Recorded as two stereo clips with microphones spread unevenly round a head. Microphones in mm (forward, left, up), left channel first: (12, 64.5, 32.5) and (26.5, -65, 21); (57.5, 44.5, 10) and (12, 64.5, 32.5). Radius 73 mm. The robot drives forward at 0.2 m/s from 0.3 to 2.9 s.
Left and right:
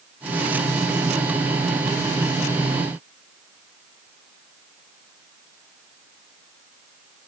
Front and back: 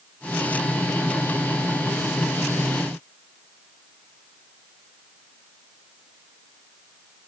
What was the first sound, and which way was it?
Only background noise.